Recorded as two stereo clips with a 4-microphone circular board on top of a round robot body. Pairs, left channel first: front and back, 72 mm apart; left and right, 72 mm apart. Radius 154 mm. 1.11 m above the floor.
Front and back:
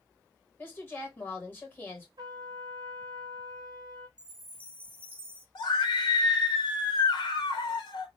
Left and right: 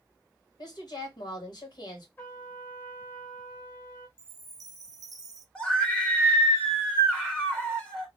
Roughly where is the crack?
I don't hear a crack.